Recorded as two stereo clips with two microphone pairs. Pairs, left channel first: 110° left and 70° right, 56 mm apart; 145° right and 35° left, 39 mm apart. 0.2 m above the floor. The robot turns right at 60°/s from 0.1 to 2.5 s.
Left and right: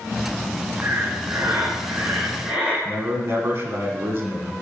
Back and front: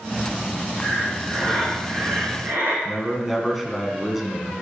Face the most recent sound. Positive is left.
turn(degrees=-55)